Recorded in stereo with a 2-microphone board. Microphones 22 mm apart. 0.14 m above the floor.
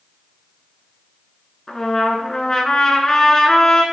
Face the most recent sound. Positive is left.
turn(degrees=30)  # may be behind; listen again after turning